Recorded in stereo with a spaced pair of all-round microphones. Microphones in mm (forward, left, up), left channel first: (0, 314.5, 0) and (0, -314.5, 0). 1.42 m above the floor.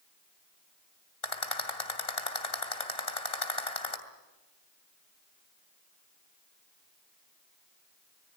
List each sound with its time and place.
1.2 s a rattle: 65° left (ahead or behind), 2.5 m